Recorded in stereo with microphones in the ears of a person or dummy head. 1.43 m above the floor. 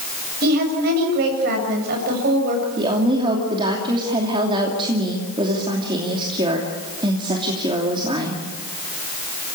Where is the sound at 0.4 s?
55° right (ahead or behind), 7.5 m.